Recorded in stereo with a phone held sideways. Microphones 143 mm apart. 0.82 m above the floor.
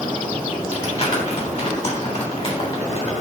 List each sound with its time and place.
0.7 s crumpling: 45° left (ahead or behind), 3 m